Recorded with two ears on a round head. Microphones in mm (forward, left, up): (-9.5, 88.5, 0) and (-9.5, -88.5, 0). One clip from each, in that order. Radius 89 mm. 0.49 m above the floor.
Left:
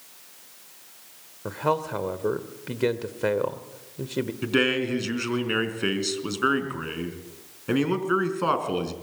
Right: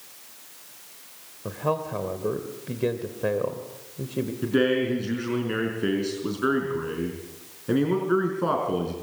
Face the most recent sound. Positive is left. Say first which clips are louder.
# right 1 dB
turn(degrees=70)  # may be behind; listen again after turning